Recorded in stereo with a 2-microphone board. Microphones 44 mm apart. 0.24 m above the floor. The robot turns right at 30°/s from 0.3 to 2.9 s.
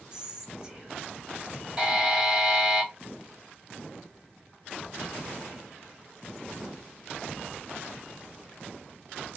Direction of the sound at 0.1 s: 20° right (ahead or behind).